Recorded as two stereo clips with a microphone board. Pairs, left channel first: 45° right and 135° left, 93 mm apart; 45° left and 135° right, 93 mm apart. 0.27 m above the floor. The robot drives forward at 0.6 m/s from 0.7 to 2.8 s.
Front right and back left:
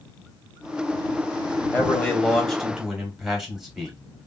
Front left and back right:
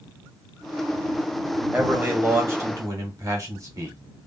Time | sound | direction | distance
1.7 | a man speaking | 75° right | 1.1 m